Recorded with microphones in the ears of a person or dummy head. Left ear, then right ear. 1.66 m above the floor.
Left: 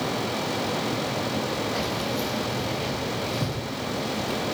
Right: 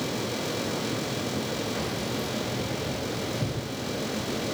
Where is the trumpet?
No trumpet in this recording.